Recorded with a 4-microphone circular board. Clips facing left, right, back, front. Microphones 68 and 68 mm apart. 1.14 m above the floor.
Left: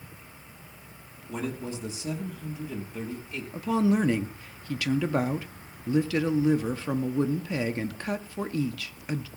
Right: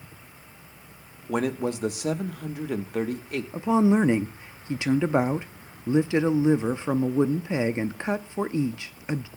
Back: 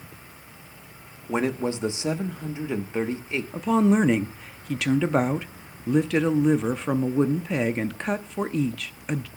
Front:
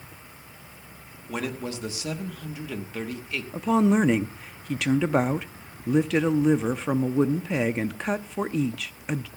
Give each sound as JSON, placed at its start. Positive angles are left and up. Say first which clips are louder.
{"t": 1.3, "sound": "a man speaking", "louder": "right 7 dB, back 6 dB", "azimuth_deg": -115, "distance_m": 1.0}
{"t": 3.5, "sound": "a woman speaking", "louder": "right 4 dB, back 1 dB", "azimuth_deg": -85, "distance_m": 0.5}